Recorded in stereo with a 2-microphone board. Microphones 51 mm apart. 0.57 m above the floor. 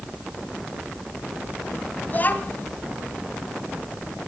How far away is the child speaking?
About 2.5 m.